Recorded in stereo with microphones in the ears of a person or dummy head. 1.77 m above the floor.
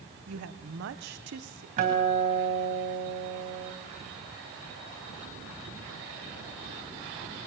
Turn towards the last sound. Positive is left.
turn(degrees=-40)  # may be behind; listen again after turning